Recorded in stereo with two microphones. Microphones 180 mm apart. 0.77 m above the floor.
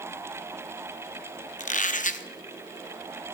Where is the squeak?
45° left (ahead or behind), 0.7 m.